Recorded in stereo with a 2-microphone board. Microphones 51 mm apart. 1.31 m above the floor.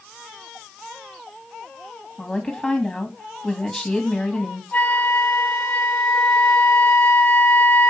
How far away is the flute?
About 1.2 m.